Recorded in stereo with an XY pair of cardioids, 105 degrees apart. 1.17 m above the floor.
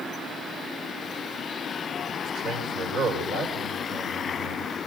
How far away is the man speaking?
About 5.5 m.